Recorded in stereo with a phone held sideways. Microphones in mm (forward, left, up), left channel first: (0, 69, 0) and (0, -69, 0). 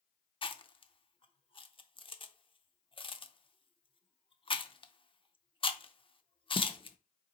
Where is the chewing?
40° left (ahead or behind), 0.5 m.